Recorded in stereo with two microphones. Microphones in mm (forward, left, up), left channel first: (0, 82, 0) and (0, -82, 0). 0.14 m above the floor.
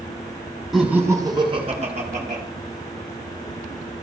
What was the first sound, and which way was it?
Laughter, centre (ahead or behind).